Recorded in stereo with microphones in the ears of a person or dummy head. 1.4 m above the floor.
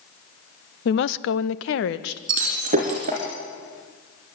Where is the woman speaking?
65° left (ahead or behind), 0.7 m; by 2.2 s 75° left (ahead or behind), 1.2 m.